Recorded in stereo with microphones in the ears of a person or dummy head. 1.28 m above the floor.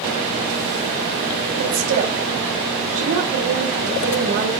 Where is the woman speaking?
90° right, 5.5 m.